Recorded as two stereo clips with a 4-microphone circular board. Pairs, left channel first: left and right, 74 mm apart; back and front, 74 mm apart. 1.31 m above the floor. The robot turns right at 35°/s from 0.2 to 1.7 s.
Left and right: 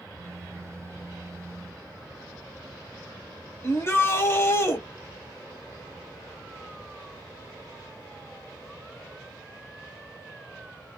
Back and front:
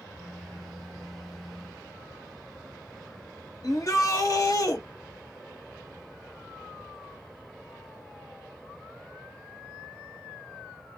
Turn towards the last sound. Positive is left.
turn(degrees=145)